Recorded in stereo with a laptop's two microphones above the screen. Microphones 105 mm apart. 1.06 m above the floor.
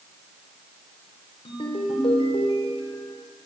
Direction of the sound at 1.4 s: 65° left (ahead or behind).